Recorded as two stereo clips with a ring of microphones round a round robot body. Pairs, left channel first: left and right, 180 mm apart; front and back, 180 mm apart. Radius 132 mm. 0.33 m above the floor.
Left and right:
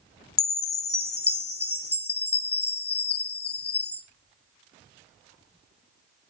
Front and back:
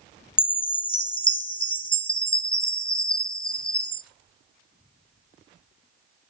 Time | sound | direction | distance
0.4 | a chime | 65° left | 1.6 m